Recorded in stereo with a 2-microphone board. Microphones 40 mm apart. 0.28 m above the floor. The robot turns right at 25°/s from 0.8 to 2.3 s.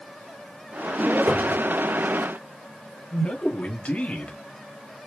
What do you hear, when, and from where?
1.3 s a cupboard door: 65° right (ahead or behind), 3.5 m; by 1.7 s 55° right (ahead or behind), 3.5 m
3.1 s a man speaking: 30° left (ahead or behind), 1.3 m